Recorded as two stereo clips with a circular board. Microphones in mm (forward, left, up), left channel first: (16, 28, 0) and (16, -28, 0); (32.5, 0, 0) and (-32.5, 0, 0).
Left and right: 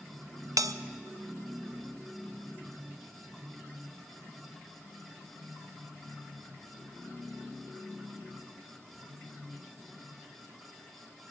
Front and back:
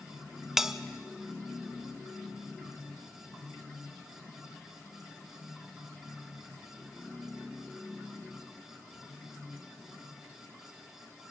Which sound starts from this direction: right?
A bell, at 0.6 s.